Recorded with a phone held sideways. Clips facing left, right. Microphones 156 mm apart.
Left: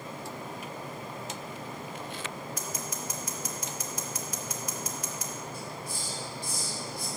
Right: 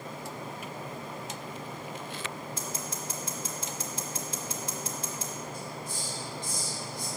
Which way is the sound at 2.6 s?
30° right (ahead or behind).